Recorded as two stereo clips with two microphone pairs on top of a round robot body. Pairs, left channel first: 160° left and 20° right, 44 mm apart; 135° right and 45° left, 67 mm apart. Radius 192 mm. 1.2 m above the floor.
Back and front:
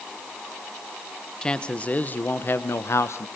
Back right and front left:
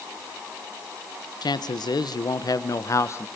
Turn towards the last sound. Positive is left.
turn(degrees=175)